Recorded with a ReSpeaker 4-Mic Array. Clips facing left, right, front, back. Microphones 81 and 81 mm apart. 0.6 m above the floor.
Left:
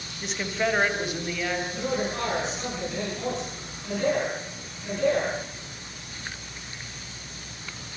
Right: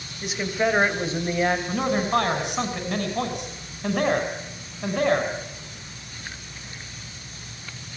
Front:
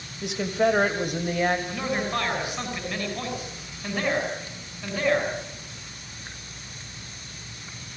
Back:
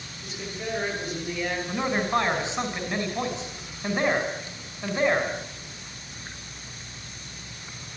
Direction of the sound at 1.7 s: 115° right.